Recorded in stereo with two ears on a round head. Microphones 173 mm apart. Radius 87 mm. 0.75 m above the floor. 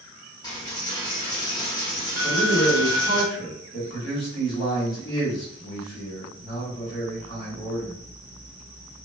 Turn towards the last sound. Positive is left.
turn(degrees=30)  # may be behind; listen again after turning